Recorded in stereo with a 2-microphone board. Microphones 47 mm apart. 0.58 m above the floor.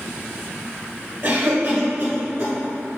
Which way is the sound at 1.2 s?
30° right (ahead or behind).